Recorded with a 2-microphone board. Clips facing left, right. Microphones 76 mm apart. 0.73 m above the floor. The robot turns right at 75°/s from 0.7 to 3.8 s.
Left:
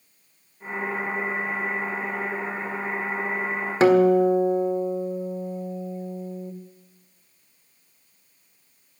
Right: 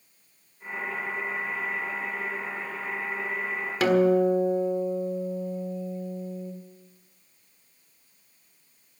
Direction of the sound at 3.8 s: 30° left (ahead or behind).